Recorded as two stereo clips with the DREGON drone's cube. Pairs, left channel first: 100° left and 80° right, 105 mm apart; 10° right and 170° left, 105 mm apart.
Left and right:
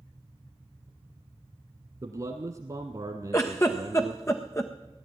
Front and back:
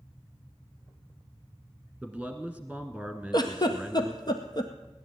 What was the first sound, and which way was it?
A man speaking, 105° right.